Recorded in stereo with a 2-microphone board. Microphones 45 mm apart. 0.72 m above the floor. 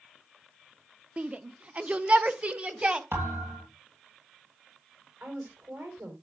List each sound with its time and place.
1.2 s a shout: 25° right (ahead or behind), 0.5 m; by 3.0 s 30° right (ahead or behind), 1.2 m
3.1 s a thud: 65° right (ahead or behind), 8.5 m
5.2 s a woman speaking: 70° right (ahead or behind), 3.5 m